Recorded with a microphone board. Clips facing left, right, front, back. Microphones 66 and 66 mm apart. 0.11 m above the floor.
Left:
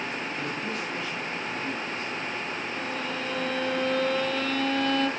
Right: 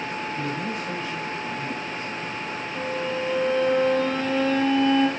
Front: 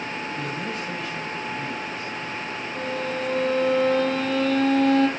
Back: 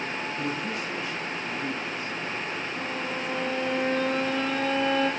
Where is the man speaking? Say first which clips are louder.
Right 3 dB, front 1 dB; 35° right, 9 m.